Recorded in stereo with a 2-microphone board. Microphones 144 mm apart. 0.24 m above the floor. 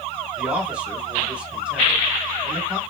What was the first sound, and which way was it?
A man speaking, 10° right (ahead or behind).